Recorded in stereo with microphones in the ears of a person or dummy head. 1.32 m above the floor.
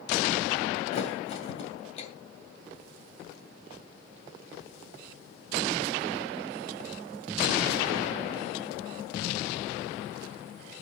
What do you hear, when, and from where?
0.9 s a thud: 40° left (ahead or behind), 2 m